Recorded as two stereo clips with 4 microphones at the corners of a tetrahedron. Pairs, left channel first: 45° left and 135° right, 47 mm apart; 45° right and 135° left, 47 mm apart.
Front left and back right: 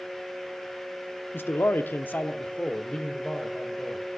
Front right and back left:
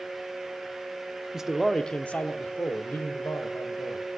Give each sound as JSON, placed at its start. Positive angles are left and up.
{"t": 1.3, "sound": "a man speaking", "azimuth_deg": 60, "distance_m": 0.9}